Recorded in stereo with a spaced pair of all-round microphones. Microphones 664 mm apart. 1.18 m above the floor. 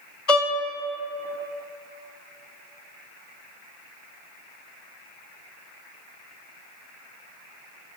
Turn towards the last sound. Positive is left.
turn(degrees=50)  # may be behind; listen again after turning